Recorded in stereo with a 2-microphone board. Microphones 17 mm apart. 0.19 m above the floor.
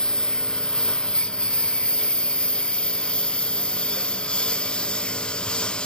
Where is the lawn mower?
45° left (ahead or behind); by 5.9 s 80° left.